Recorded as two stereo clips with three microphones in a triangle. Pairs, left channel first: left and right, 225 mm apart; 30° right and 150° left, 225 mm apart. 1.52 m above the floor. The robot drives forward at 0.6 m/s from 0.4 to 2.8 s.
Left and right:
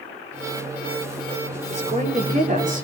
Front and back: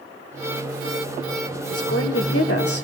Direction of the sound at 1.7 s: 30° right.